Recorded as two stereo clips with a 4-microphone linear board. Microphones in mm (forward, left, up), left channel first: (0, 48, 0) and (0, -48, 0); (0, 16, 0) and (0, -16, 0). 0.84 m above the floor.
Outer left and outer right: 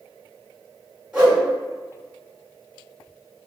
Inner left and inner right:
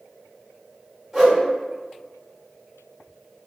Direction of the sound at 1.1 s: 15° right (ahead or behind).